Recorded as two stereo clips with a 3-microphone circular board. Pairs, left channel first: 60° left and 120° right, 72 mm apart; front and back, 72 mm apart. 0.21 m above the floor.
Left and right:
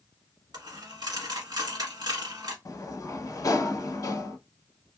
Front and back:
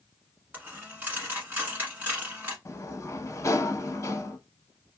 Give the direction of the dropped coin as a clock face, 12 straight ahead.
4 o'clock.